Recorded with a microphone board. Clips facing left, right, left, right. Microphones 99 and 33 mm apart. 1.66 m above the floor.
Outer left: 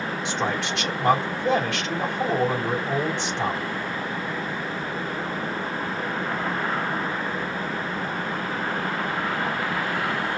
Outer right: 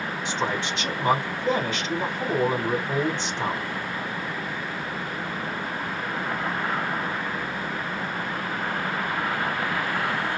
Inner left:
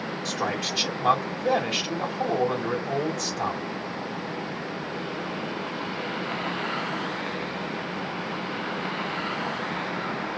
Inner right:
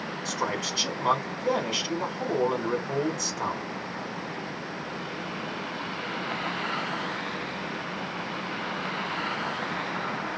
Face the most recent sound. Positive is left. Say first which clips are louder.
# even, inner left 1 dB
turn(degrees=75)  # may be behind; listen again after turning